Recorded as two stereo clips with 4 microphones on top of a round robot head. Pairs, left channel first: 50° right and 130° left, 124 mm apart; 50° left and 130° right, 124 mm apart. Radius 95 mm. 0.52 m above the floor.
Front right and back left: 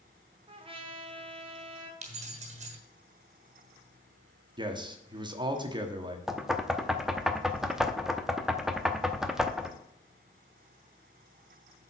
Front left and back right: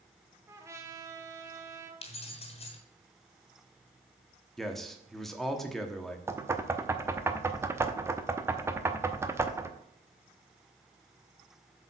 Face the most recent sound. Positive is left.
turn(degrees=-150)